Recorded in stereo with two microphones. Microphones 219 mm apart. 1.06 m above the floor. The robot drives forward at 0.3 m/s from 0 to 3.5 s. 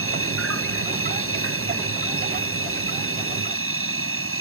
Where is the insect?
80° right; by 4.4 s 75° right (ahead or behind).